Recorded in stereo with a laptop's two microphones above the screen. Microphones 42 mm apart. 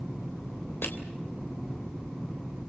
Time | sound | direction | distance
0.8 | crushing | 75° left (ahead or behind) | 3 m